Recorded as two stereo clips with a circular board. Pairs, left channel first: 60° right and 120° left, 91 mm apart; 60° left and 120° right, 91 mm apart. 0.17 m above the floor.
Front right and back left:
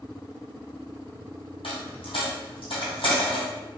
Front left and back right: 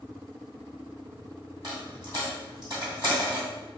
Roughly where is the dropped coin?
Right.